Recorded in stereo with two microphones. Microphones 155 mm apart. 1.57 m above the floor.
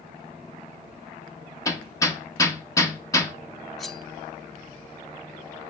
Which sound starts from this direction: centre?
Cutlery clinking, at 3.8 s.